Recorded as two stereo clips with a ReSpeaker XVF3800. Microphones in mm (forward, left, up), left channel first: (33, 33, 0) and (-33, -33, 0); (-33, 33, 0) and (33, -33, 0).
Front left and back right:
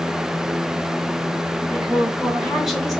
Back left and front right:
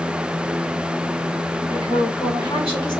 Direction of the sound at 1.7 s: 145° left.